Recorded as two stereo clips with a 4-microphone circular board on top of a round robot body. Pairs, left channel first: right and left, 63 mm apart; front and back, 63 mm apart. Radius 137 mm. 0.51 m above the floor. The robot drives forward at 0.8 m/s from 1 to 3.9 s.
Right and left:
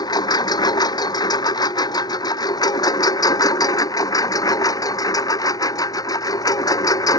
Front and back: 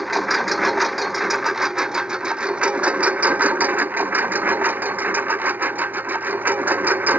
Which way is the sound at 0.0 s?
90° right.